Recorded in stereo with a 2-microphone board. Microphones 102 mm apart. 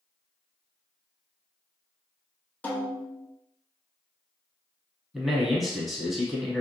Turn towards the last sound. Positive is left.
turn(degrees=0)  # may be behind; listen again after turning